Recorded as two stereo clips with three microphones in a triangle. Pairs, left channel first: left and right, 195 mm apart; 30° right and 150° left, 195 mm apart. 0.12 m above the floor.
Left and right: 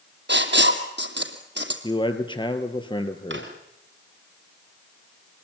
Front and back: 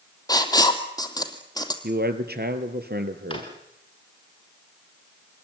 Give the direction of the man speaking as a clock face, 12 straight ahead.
7 o'clock.